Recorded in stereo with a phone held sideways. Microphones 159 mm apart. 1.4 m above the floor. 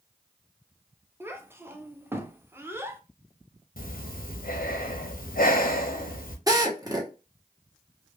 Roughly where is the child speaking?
Centre.